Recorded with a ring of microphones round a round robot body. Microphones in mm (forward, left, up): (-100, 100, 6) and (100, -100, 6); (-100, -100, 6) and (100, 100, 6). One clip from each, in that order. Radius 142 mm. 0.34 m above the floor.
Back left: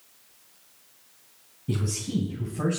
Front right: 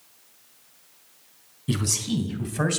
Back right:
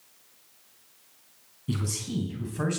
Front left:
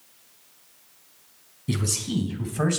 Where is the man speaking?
30° right, 2.5 m.